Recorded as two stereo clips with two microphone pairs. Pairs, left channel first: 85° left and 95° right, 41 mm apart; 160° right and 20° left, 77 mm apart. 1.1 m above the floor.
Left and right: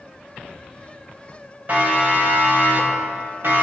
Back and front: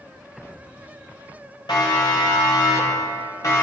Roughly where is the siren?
Behind right.